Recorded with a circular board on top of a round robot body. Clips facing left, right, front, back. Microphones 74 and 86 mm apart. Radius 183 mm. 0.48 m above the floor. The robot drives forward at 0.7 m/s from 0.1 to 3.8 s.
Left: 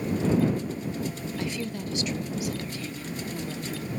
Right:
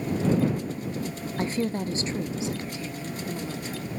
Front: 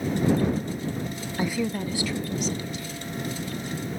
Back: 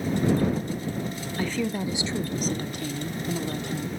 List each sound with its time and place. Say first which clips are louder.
1.4 s a woman speaking: right 7 dB, front 1 dB; 60° right, 0.8 m; by 3.9 s 165° right, 1.7 m